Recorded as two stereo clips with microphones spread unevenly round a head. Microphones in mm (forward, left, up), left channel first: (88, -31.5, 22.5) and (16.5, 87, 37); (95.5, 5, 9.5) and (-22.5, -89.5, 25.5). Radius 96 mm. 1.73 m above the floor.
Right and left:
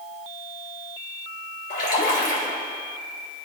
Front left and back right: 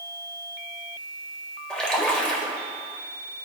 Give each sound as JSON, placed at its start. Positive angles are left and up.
{"t": 1.7, "sound": "a splash", "azimuth_deg": -50, "distance_m": 2.5}